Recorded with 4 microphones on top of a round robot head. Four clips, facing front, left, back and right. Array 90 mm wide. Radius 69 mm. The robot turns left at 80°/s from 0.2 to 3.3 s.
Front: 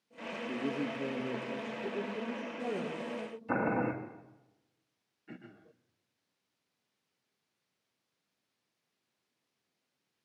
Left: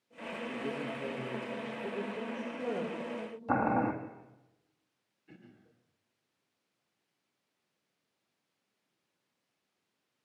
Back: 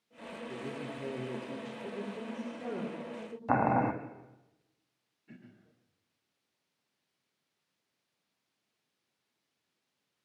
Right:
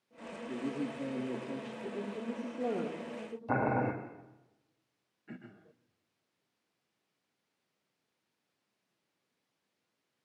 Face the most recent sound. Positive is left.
turn(degrees=-50)